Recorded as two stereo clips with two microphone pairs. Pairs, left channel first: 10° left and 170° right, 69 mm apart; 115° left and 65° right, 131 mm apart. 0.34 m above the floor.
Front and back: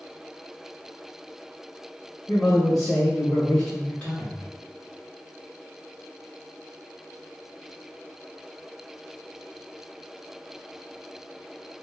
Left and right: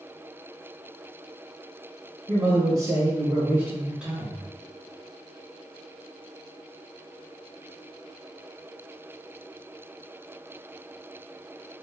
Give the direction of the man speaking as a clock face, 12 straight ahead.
3 o'clock.